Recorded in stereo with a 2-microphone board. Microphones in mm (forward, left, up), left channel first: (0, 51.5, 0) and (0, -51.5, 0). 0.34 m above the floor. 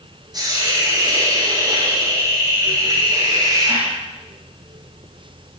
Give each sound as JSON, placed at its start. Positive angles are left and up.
{"t": 0.3, "sound": "a hiss", "side_deg": -40, "distance_m": 8.5}